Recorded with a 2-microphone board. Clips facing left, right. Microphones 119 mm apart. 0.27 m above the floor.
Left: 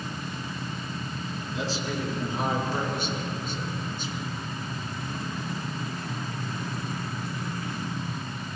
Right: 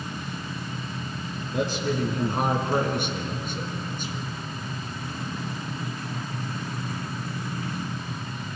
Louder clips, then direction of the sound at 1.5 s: Right 5 dB; 60° right (ahead or behind).